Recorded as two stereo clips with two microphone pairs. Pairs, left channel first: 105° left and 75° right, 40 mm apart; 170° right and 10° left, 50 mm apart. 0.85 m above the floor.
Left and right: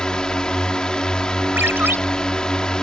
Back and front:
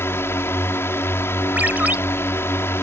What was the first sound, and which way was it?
A drone, 175° left.